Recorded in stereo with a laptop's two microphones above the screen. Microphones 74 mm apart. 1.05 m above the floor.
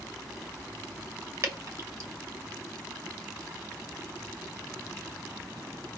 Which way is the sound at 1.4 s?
45° right (ahead or behind).